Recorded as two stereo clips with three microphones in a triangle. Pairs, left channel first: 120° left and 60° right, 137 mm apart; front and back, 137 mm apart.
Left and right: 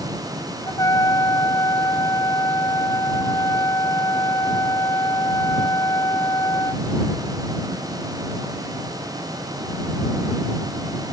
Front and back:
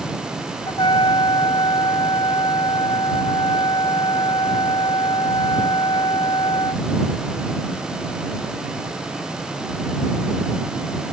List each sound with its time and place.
0.7 s a trumpet: 55° left